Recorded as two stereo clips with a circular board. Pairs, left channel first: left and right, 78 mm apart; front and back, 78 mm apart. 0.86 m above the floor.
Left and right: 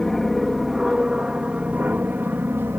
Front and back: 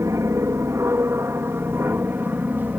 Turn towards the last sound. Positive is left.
turn(degrees=-130)